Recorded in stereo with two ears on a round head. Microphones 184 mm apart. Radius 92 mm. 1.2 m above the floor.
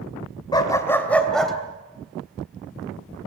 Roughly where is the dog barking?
Left.